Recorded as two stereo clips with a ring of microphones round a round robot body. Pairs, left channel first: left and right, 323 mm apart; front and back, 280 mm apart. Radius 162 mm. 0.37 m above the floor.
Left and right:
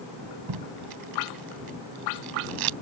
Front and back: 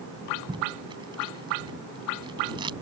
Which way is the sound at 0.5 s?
105° right.